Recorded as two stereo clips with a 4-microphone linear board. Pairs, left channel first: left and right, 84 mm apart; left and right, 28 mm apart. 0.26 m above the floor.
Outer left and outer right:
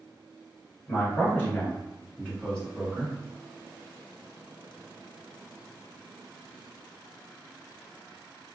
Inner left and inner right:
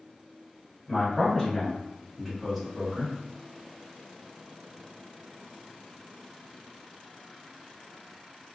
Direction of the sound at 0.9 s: 40° left (ahead or behind).